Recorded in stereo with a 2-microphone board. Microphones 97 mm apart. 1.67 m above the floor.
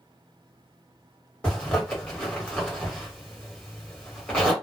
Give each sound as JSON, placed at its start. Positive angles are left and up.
{"t": 1.4, "sound": "a zipper", "side_deg": 10, "distance_m": 1.4}